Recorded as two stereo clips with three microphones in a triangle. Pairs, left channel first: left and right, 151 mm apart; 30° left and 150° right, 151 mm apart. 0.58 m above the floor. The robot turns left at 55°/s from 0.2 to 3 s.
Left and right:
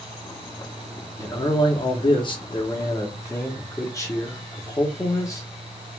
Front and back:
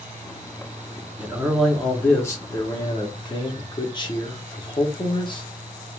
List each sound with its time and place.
1.2 s a man speaking: 145° left, 0.7 m; by 5.5 s 45° left, 0.7 m